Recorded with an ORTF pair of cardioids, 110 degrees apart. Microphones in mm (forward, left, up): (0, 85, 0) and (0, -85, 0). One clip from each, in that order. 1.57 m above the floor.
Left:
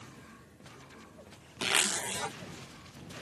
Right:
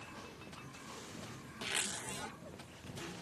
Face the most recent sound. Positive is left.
turn(degrees=60)